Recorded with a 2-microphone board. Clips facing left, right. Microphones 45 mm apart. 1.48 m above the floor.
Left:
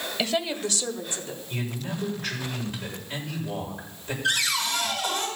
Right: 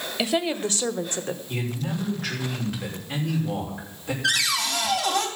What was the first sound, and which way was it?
A woman speaking, 10° right (ahead or behind).